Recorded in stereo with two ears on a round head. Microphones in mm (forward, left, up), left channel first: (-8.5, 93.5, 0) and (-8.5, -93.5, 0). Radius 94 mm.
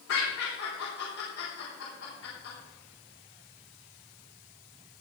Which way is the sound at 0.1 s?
75° left (ahead or behind).